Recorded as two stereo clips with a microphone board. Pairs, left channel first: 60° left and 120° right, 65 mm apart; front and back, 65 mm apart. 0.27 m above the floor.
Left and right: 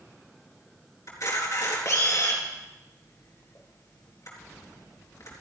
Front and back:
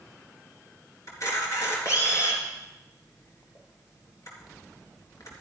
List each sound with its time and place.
1.1 s a camera shutter: 30° left, 4 m